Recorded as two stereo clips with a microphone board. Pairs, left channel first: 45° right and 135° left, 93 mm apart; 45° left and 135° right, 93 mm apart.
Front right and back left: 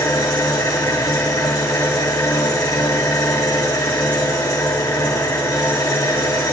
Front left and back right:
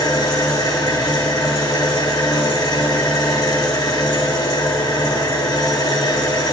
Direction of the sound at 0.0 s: 5° left.